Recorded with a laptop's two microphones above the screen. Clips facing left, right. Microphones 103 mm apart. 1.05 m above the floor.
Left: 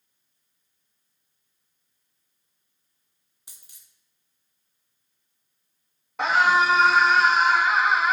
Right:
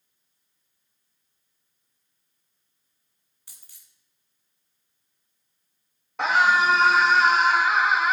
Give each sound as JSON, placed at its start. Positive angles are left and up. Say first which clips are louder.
{"t": 3.5, "sound": "a dropped coin", "louder": "left 1 dB", "side_deg": 20, "distance_m": 2.0}
{"t": 6.2, "sound": "a scream", "louder": "even", "side_deg": 0, "distance_m": 1.3}